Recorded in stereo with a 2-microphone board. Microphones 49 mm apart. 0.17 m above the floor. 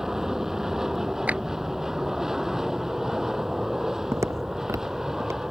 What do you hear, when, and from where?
0.0 s an aircraft: 10° right (ahead or behind)
1.3 s a clap: 30° right (ahead or behind)
4.1 s footsteps: 60° right (ahead or behind); by 5.5 s 65° right (ahead or behind)